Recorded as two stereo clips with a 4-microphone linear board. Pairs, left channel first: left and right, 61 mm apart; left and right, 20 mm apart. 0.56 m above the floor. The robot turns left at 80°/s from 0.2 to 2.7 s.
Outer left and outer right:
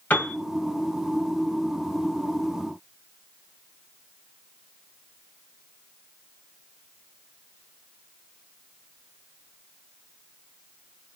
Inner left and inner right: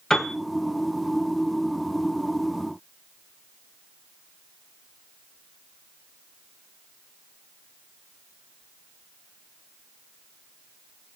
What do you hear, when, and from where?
0.1 s a piano: 30° left (ahead or behind), 1.4 m; by 0.3 s 20° left (ahead or behind), 1.4 m